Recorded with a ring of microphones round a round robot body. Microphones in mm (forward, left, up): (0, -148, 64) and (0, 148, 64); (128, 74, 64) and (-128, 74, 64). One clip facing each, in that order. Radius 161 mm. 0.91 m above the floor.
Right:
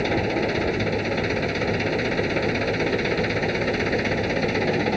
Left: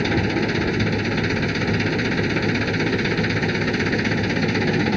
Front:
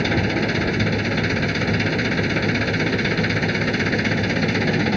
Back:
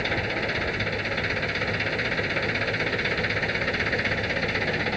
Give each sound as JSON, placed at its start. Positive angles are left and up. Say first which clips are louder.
{"t": 0.0, "sound": "an engine running", "louder": "left 2 dB, front 9 dB", "azimuth_deg": 30}